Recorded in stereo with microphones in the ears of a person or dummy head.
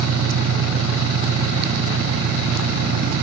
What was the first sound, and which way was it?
An engine running, 65° right (ahead or behind).